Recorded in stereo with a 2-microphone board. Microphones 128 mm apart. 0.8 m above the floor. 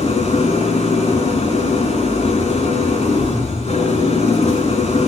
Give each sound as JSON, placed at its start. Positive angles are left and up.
{"t": 0.0, "sound": "an engine running", "side_deg": 55, "distance_m": 8.0}